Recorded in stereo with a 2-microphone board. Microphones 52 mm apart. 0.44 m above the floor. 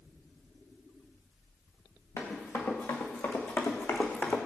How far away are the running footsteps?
About 3.5 m.